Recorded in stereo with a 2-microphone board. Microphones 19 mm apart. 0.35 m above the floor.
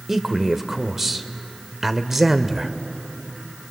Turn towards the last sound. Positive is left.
turn(degrees=-10)  # may be behind; listen again after turning